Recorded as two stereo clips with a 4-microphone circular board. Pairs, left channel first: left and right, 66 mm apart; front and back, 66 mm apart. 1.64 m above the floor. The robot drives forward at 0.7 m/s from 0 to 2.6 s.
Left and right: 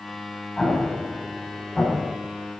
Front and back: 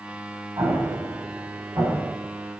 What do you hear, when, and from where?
0.6 s an explosion: 155° left, 7.5 m; by 2.1 s 160° left, 8.5 m